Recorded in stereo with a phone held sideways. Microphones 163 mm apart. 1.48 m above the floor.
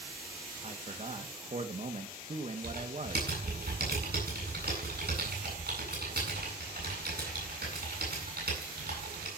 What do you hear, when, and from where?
0.6 s a man speaking: 45° right (ahead or behind), 2 m
2.6 s typing on a keyboard: 75° right (ahead or behind), 9 m